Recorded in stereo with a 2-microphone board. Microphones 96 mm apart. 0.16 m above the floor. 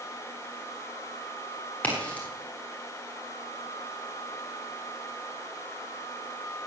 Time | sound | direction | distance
1.8 | a crack | 15° left (ahead or behind) | 7 m